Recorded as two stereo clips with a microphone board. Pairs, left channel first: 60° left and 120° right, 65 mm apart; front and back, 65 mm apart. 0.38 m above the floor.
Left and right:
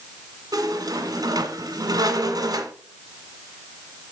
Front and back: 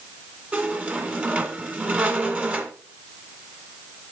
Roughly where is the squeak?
Right.